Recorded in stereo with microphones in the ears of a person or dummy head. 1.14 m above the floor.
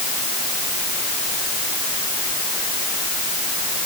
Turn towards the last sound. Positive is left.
No sound to turn to.